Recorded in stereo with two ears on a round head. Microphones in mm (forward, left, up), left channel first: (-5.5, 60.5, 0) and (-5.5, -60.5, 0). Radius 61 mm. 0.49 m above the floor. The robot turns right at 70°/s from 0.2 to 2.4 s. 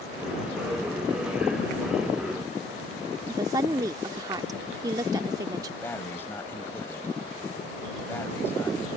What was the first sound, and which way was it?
A woman speaking, 25° right (ahead or behind).